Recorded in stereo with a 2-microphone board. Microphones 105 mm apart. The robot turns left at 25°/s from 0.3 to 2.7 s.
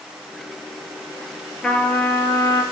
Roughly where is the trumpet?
Centre.